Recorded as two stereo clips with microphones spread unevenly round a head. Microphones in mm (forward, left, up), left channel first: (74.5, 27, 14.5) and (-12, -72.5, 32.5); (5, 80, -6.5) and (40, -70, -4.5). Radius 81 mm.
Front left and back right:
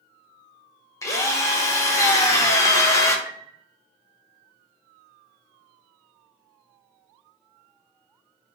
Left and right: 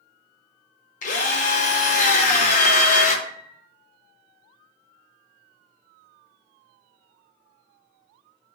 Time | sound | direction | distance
1.0 | a drill | 100° left | 0.6 m
3.2 | a piano | 50° left | 1.1 m